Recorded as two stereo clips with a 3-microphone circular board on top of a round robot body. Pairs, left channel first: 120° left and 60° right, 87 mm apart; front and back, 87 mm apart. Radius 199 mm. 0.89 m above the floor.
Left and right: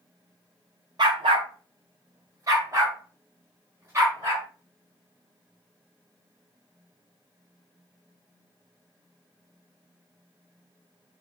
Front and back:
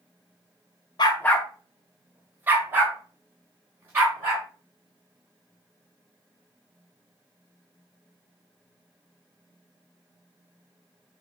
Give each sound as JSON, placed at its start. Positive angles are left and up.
{"t": 1.0, "sound": "a dog barking", "azimuth_deg": -30, "distance_m": 0.6}